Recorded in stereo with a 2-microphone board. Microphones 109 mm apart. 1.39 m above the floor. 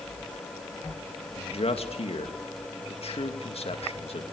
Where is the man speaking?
65° left (ahead or behind), 2 m.